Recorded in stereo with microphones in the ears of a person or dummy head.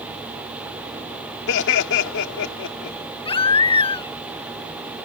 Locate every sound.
1.5 s laughter: 75° left (ahead or behind)
3.2 s a baby crying: 30° left (ahead or behind)